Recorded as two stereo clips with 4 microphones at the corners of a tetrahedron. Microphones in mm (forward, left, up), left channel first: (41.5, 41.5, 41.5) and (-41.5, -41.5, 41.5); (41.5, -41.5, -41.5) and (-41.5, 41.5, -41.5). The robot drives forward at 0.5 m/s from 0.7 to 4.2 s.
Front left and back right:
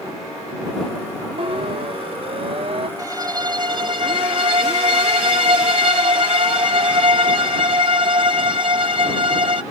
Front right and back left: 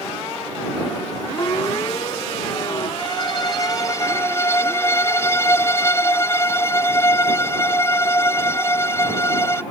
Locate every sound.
1.4 s a siren: 100° right
3.0 s a violin: 80° right; by 9.6 s 110° right